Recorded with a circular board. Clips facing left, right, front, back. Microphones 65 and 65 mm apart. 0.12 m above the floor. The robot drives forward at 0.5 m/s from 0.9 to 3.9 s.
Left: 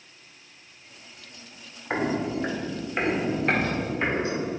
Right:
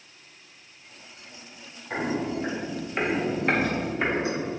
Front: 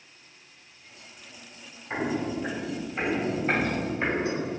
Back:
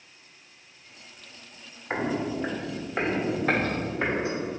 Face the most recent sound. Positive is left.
turn(degrees=-160)